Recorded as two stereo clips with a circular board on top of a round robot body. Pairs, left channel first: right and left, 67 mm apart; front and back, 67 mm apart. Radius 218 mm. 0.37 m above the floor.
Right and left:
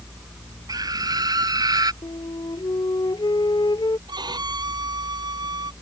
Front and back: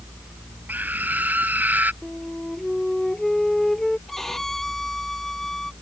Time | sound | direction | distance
0.7 | a scream | 115° left | ?
2.0 | a flute | 85° right | ?
4.1 | a violin | 85° left | ?